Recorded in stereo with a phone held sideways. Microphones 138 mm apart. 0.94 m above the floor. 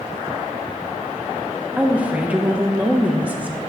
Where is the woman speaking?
10° right (ahead or behind), 0.8 m.